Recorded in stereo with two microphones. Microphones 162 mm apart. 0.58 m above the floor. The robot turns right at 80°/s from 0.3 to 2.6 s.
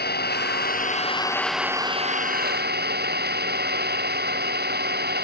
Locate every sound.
0.0 s an engine running: 80° left; by 5.2 s 95° right